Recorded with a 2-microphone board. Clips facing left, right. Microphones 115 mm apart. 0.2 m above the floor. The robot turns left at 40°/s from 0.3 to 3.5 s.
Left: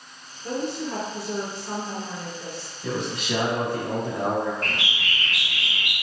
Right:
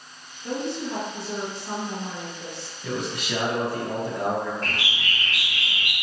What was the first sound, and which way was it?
A woman speaking, 40° left.